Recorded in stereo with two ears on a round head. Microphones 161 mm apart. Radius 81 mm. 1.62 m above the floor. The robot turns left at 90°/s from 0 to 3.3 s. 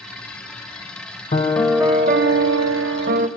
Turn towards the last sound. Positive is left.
turn(degrees=-150)